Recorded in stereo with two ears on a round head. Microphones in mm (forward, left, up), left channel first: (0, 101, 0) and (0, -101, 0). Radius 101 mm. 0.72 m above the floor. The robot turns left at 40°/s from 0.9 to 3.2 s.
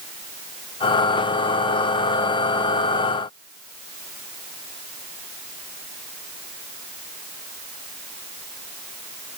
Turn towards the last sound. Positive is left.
No sound to turn to.